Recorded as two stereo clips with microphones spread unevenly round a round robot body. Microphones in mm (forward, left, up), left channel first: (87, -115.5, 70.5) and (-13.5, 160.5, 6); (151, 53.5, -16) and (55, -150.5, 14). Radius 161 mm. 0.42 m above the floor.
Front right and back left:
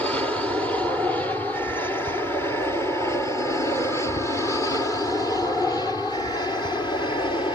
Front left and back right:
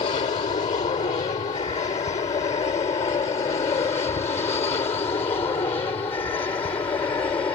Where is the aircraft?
30° left; by 7.5 s 10° left.